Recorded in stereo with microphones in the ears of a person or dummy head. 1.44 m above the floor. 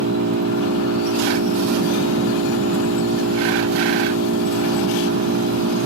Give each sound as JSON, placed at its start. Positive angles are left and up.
{"t": 0.0, "sound": "an engine running", "side_deg": -80}